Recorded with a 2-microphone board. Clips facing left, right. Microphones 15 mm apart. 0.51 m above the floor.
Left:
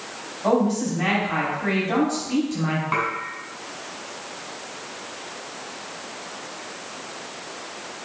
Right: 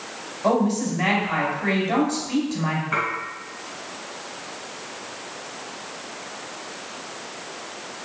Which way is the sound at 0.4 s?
10° right (ahead or behind).